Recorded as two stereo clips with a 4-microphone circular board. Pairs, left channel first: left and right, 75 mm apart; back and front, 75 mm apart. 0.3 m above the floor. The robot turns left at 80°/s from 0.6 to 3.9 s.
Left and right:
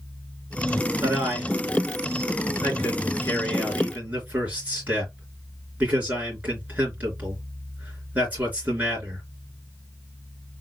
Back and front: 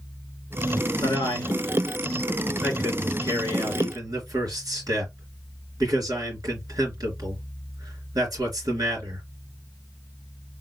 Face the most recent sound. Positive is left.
turn(degrees=-25)